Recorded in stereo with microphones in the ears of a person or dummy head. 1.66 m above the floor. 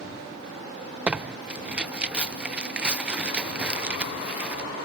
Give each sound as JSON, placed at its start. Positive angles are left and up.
{"t": 1.1, "sound": "tearing paper", "side_deg": 0}